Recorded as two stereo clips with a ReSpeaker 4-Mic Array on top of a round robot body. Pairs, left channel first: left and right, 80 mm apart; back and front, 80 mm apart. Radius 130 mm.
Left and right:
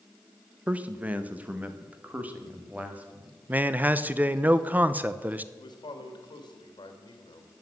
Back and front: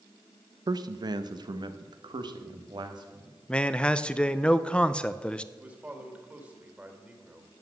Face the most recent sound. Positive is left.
turn(degrees=70)